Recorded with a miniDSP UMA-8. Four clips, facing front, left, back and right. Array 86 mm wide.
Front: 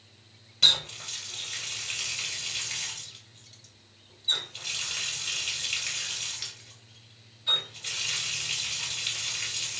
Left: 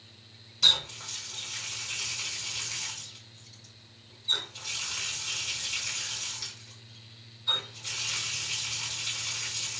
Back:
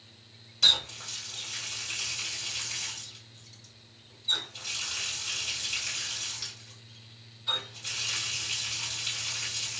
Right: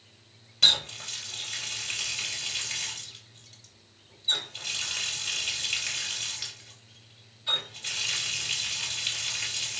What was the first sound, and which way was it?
A running tap, 55° right.